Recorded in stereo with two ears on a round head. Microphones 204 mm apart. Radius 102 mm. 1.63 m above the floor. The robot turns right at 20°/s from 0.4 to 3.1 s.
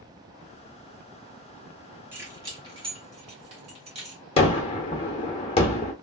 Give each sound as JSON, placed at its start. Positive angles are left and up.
{"t": 2.1, "sound": "keys jangling", "side_deg": -10, "distance_m": 1.4}
{"t": 4.4, "sound": "a gunshot", "side_deg": 25, "distance_m": 0.7}